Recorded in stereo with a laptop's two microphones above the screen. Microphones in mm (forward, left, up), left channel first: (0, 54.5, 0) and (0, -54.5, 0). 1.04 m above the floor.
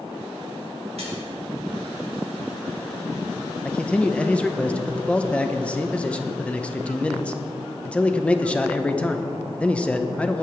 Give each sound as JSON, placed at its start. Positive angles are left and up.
{"t": 1.0, "sound": "a splash", "side_deg": -70, "distance_m": 4.5}
{"t": 3.6, "sound": "a man speaking", "side_deg": 10, "distance_m": 0.9}